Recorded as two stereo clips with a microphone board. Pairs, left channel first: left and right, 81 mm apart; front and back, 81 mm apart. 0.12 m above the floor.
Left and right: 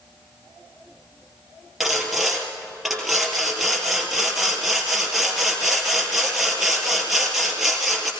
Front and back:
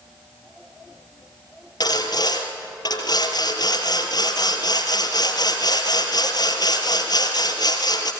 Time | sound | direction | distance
1.8 | sawing | straight ahead | 3 m